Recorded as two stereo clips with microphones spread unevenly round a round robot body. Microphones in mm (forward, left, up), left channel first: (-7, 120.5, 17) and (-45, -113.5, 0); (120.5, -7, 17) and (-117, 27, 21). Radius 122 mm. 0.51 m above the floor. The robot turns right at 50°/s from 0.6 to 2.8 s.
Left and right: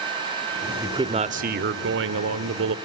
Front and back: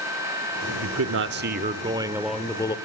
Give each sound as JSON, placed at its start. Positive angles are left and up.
{"t": 0.8, "sound": "a man speaking", "azimuth_deg": -175, "distance_m": 1.2}